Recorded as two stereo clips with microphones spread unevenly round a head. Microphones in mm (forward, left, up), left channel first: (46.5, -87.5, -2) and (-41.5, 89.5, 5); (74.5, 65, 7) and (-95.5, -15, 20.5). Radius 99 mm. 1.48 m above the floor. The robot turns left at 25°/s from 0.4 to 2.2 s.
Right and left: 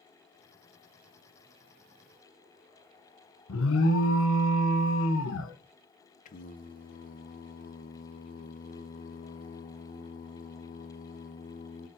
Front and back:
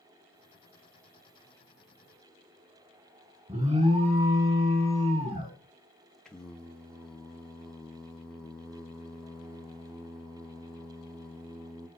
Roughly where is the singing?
Ahead right.